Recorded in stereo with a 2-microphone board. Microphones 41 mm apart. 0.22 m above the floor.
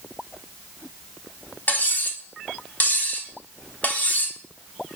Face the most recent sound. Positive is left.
turn(degrees=40)  # may be behind; listen again after turning